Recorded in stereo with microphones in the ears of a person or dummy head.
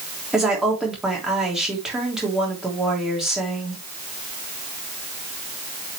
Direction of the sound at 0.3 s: Centre (ahead or behind).